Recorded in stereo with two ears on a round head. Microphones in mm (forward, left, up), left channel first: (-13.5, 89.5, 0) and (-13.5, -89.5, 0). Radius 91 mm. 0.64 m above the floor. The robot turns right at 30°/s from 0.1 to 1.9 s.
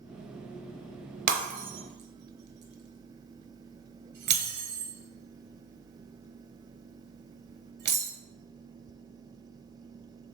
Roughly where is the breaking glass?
Right.